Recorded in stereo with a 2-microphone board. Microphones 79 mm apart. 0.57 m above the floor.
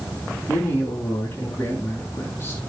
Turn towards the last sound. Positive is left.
turn(degrees=35)  # may be behind; listen again after turning